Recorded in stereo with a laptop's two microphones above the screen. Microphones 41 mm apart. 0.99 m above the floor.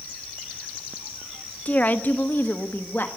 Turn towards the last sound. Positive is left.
turn(degrees=60)  # may be behind; listen again after turning